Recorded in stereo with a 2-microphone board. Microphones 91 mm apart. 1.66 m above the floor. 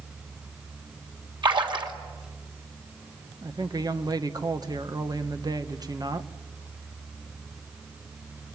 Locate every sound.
1.4 s a splash: 60° right (ahead or behind), 3 m
3.4 s a woman speaking: 45° right (ahead or behind), 1.4 m